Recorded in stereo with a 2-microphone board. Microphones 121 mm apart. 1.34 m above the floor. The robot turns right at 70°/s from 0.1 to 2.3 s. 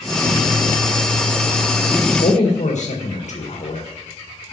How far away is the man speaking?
About 1.6 m.